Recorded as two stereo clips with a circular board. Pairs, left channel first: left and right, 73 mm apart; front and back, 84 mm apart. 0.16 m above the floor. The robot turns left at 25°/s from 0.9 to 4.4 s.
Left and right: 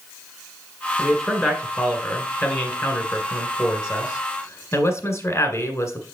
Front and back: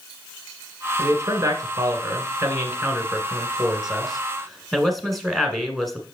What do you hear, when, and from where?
1.0 s a man speaking: 170° left, 1.3 m; by 6.0 s 85° left, 1.3 m